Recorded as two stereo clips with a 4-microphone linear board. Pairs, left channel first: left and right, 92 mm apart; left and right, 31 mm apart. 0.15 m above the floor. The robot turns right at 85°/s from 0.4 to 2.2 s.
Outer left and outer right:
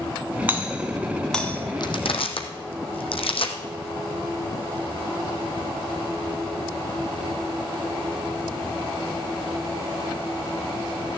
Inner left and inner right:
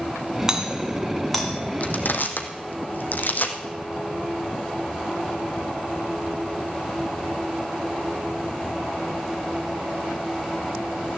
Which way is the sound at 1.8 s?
50° left (ahead or behind).